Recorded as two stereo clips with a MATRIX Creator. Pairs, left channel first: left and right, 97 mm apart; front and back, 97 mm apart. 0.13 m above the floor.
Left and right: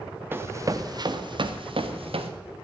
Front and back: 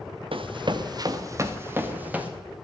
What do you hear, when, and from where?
0.3 s running footsteps: 155° right, 1.4 m; by 2.3 s 105° right, 2.5 m